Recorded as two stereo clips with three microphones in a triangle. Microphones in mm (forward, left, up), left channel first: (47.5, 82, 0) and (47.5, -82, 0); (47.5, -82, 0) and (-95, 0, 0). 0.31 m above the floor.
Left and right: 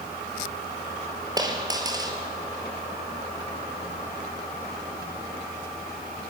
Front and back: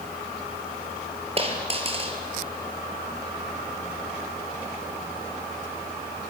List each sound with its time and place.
1.4 s a dropped coin: 155° right, 3 m